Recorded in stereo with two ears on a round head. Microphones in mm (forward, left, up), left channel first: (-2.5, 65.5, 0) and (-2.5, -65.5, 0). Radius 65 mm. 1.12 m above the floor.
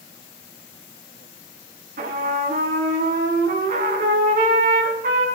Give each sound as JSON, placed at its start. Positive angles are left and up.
{"t": 2.0, "sound": "a trumpet", "side_deg": -60, "distance_m": 3.5}